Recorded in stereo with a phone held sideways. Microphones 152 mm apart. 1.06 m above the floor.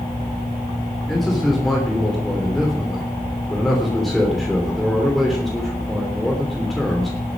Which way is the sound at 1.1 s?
Centre (ahead or behind).